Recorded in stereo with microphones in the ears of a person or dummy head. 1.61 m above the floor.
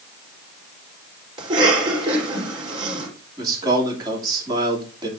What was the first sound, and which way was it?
A cough, 30° right (ahead or behind).